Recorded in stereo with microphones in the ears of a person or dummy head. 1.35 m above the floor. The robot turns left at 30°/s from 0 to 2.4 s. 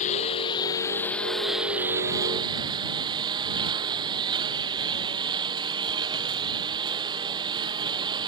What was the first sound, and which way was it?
A lawn mower, 45° left.